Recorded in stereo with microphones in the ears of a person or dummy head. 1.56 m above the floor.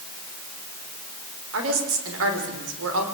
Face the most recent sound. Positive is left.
turn(degrees=-90)